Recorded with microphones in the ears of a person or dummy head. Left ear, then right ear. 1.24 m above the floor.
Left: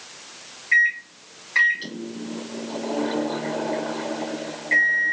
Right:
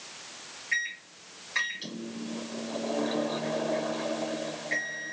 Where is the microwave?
15° left (ahead or behind), 0.5 m.